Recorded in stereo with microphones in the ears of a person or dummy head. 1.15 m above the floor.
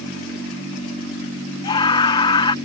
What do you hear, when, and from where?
1.6 s a scream: 30° left (ahead or behind)